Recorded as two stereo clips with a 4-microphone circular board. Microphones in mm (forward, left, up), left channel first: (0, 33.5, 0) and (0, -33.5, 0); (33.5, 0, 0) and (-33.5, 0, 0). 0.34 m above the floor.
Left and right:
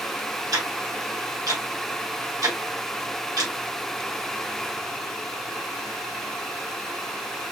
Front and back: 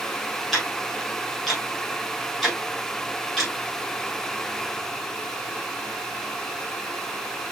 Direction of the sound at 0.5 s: 85° right.